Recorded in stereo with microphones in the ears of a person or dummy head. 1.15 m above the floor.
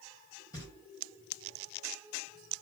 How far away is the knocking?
About 1.2 m.